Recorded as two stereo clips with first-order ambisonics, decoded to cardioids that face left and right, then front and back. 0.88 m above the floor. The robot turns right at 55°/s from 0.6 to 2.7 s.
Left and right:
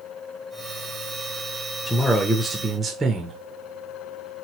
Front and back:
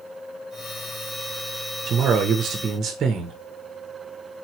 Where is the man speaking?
165° left, 0.5 m; by 3.4 s 150° right, 0.5 m.